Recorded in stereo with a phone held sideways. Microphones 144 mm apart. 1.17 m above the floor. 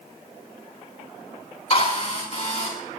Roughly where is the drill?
Left.